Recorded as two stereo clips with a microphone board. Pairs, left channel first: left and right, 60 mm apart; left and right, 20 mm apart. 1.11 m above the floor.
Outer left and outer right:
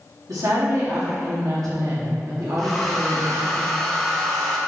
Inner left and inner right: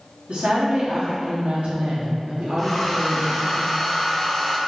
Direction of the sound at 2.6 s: Centre (ahead or behind).